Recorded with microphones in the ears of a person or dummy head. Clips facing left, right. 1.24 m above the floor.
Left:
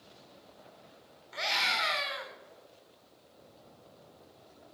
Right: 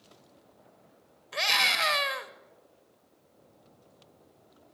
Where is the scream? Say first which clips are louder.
Right 3 dB; 80° right, 1.9 m.